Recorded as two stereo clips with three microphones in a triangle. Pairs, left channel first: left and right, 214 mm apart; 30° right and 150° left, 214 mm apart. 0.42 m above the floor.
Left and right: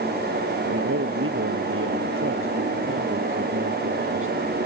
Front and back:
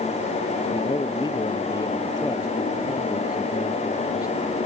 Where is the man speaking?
100° right; by 4.6 s 105° right.